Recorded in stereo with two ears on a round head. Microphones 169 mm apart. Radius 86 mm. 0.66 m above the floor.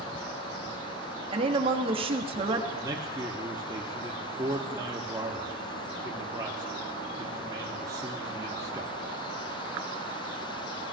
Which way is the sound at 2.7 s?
20° right (ahead or behind).